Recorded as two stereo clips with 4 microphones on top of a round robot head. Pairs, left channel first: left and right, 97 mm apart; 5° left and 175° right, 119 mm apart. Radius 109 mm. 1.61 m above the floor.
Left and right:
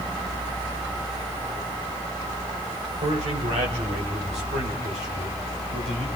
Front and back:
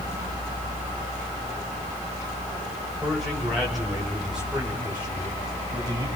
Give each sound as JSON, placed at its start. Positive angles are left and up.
{"t": 3.0, "sound": "a man speaking", "azimuth_deg": -85, "distance_m": 7.0}